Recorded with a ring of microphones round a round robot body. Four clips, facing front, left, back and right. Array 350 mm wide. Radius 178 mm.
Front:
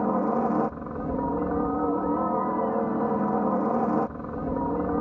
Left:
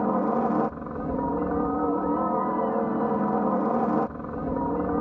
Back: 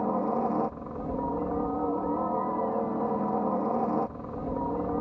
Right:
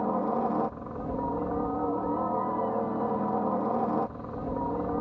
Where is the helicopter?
55° left.